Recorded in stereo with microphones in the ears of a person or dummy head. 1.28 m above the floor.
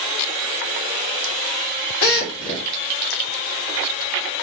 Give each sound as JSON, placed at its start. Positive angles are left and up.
{"t": 2.0, "sound": "a drill", "side_deg": 75, "distance_m": 1.1}